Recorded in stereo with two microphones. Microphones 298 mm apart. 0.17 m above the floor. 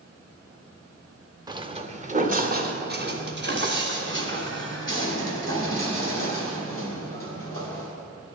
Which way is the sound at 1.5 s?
15° right (ahead or behind).